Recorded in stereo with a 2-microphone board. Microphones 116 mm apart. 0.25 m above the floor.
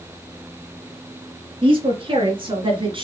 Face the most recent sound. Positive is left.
turn(degrees=-45)  # may be behind; listen again after turning